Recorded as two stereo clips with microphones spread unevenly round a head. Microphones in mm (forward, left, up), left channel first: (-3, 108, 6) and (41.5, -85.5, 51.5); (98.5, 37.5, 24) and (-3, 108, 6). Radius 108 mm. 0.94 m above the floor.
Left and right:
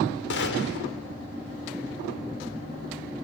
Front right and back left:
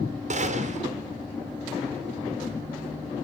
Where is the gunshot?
130° left, 4 m.